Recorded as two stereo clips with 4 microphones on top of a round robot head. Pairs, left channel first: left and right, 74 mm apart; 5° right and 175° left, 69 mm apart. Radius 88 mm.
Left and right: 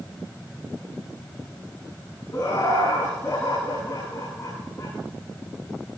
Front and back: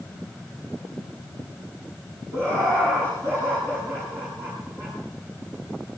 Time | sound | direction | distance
2.3 | laughter | 145° left | 9.5 m